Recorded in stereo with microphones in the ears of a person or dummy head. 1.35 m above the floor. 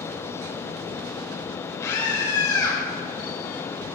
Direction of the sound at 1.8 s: 15° left (ahead or behind).